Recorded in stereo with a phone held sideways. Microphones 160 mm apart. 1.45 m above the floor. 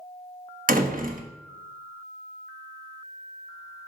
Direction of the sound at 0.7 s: 60° right (ahead or behind).